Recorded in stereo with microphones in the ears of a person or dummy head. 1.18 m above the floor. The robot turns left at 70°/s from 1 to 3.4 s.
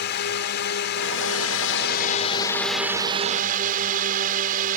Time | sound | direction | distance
0.0 | a drone | 125° left | ?